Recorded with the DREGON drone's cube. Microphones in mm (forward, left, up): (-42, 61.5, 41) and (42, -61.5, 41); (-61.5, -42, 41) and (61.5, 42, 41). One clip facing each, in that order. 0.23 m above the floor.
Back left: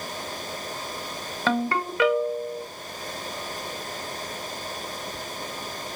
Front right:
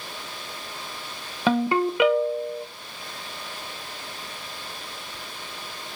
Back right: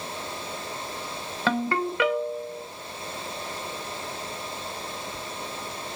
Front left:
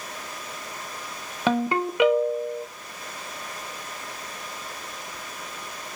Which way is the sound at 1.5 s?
10° right.